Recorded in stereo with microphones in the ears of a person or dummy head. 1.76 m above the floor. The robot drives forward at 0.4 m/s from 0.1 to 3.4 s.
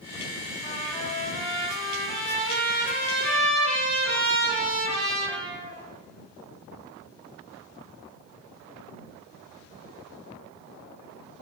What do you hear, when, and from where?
0.6 s a trumpet: 20° left (ahead or behind), 0.6 m; by 5.8 s 10° left (ahead or behind), 1.5 m